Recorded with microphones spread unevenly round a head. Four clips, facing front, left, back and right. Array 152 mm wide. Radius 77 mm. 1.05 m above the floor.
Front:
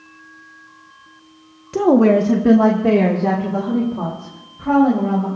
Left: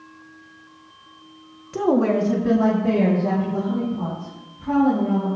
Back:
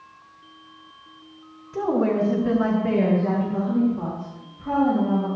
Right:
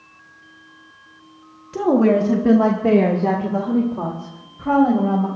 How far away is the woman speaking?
About 1.2 m.